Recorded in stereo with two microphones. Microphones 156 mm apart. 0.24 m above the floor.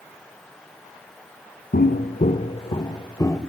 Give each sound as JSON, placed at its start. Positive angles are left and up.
{"t": 1.7, "sound": "footsteps", "side_deg": 75, "distance_m": 1.0}